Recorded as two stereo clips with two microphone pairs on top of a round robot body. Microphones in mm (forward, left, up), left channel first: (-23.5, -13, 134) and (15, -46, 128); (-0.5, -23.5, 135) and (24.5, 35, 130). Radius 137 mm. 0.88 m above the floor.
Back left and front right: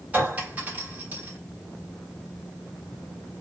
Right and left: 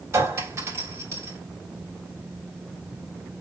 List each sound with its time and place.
0.1 s a clink: 25° left, 3.5 m